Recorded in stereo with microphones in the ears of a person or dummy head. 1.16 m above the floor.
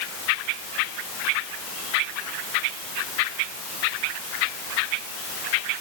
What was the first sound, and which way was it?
Only background noise.